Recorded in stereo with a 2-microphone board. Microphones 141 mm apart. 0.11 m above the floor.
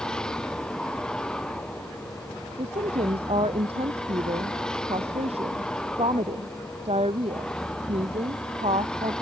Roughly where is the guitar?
No guitar in this recording.